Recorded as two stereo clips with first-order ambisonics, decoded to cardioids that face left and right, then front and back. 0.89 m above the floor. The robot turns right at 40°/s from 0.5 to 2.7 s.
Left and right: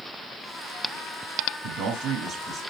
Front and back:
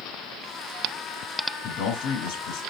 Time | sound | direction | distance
1.6 | a man speaking | 55° right | 5 m